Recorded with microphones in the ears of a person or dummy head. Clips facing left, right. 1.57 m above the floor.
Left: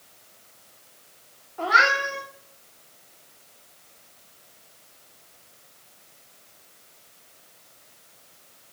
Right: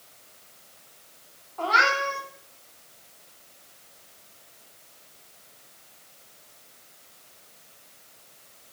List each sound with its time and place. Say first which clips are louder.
1.6 s a cat meowing: left 1 dB; 10° left (ahead or behind), 2 m